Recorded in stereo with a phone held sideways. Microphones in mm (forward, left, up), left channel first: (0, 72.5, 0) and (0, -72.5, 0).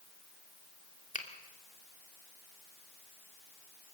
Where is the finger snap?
60° left (ahead or behind), 2.5 m.